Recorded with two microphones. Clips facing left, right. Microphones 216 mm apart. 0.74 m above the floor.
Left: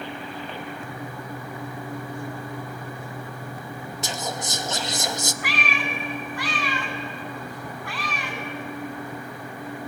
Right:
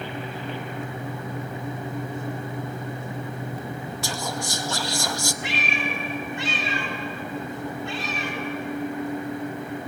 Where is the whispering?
20° left (ahead or behind), 0.8 m.